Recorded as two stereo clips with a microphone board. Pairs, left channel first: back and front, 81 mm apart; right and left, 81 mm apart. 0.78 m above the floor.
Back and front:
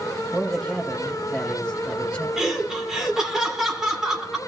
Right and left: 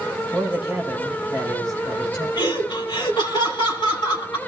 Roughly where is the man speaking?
Right.